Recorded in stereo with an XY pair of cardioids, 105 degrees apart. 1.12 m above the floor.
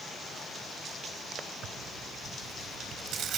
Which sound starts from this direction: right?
Tearing paper, at 1.6 s.